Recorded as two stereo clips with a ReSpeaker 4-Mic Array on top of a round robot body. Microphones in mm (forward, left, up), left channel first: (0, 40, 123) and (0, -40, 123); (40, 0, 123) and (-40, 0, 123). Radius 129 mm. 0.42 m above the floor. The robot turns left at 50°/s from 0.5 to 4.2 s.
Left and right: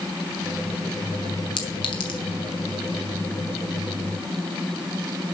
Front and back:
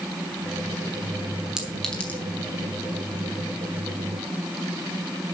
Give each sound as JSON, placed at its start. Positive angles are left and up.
{"t": 1.6, "sound": "a clink", "azimuth_deg": 100, "distance_m": 2.5}